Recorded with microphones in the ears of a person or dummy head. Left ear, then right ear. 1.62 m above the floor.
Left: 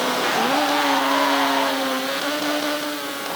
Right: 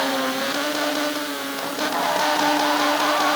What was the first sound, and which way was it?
Only background noise.